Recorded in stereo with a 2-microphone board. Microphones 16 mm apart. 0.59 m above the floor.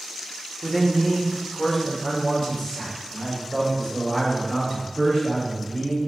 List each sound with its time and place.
0.6 s a man speaking: 15° left (ahead or behind), 1.5 m; by 6.0 s 40° left (ahead or behind), 4 m